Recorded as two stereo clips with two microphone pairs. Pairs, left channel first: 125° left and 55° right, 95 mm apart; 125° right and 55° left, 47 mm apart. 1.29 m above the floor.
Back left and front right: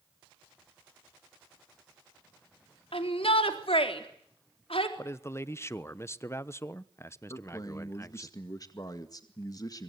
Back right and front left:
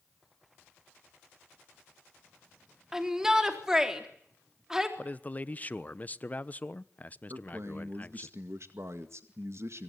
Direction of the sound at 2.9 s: 130° left.